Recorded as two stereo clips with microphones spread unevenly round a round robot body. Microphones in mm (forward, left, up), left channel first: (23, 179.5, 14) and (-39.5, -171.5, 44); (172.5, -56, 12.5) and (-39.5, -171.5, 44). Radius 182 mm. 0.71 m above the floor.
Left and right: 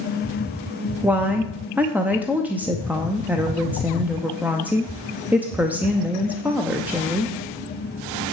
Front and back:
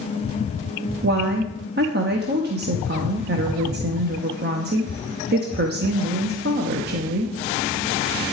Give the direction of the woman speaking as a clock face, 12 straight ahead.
6 o'clock.